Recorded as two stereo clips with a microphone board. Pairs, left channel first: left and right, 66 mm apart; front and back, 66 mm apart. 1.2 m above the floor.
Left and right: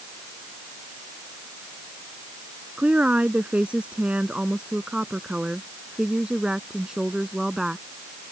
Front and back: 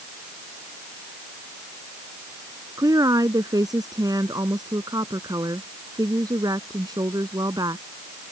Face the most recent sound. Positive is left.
turn(degrees=-170)